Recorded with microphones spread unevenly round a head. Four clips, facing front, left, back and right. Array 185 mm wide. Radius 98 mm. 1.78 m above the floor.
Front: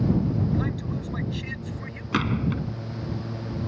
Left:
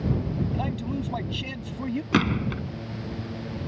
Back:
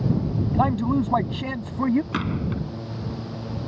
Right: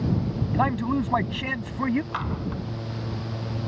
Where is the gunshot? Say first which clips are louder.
Left 6 dB, front 1 dB; 80° left.